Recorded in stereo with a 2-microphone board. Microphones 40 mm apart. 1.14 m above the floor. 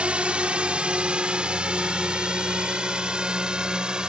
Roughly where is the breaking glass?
No breaking glass in this recording.